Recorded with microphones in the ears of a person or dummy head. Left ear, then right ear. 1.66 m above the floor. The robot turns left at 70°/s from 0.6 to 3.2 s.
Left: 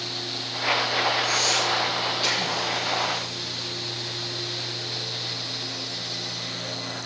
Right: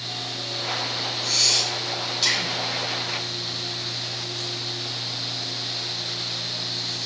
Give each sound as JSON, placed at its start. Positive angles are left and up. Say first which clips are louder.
{"t": 1.2, "sound": "breathing", "louder": "right 2 dB", "side_deg": -20, "distance_m": 6.0}